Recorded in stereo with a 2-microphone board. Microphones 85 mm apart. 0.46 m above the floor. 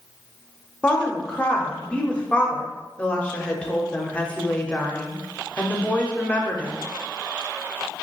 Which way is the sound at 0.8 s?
15° left (ahead or behind).